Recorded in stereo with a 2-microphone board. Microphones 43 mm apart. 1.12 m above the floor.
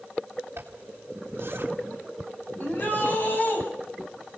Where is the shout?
45° left (ahead or behind), 9 m.